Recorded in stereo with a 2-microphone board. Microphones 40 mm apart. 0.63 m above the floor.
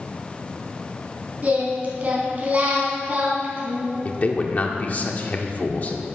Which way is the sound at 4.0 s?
40° left (ahead or behind).